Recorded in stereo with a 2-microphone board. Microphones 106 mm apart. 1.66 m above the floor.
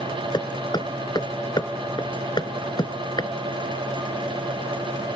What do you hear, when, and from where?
0.3 s hammering: 40° left (ahead or behind)